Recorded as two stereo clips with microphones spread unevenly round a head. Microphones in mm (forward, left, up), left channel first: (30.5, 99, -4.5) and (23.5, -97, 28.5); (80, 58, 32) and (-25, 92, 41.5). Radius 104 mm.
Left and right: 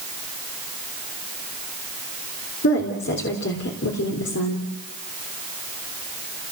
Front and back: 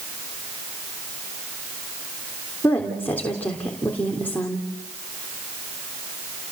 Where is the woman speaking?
60° left, 3.5 m.